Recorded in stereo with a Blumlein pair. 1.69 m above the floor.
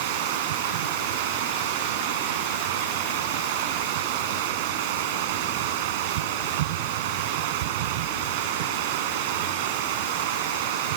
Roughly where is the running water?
Ahead right.